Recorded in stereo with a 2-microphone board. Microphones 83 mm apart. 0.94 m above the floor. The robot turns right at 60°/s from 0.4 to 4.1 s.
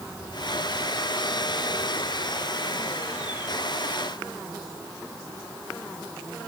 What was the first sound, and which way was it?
Only background noise.